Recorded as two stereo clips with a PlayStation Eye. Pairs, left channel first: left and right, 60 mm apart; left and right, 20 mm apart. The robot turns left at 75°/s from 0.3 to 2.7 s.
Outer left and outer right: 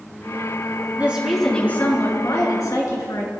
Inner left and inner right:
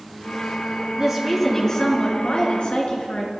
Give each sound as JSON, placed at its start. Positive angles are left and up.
{"t": 1.0, "sound": "a woman speaking", "azimuth_deg": -155, "distance_m": 4.5}